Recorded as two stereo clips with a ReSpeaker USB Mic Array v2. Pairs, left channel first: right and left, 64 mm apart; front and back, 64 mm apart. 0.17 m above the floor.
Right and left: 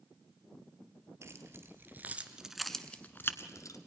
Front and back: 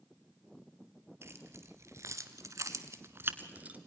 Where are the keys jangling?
130° left, 2.5 m; by 3.8 s 115° right, 1.8 m.